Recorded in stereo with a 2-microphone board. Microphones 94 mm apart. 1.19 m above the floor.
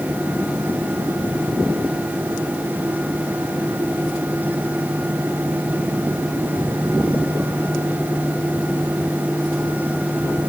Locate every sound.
Only background noise.